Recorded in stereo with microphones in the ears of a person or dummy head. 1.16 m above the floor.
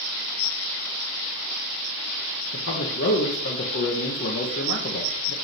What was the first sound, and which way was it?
A man speaking, 60° left (ahead or behind).